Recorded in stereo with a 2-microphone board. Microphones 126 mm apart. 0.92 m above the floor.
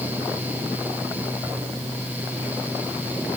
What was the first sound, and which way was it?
Only background noise.